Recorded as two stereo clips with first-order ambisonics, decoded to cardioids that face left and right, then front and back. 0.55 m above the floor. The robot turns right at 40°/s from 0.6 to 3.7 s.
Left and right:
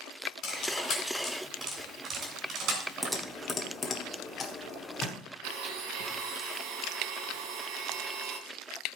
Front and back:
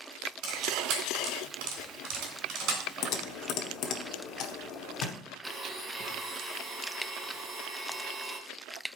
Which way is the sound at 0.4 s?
145° left.